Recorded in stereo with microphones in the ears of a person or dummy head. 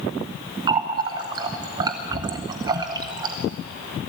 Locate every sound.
0.7 s a running tap: 20° right (ahead or behind), 0.8 m